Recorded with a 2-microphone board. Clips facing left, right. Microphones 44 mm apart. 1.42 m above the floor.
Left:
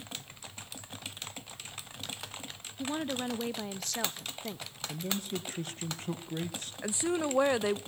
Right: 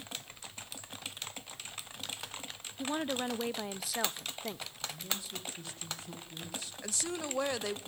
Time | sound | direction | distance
2.8 | a woman speaking | 10° right (ahead or behind) | 0.6 m
4.9 | a man speaking | 45° left (ahead or behind) | 1.4 m
6.8 | a woman speaking | 20° left (ahead or behind) | 0.6 m